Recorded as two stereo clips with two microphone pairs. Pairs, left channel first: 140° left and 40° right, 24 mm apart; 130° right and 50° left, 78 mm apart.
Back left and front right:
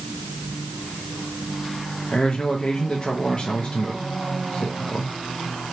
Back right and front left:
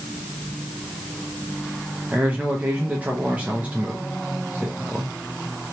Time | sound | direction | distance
2.1 | a man speaking | 115° left | 0.5 m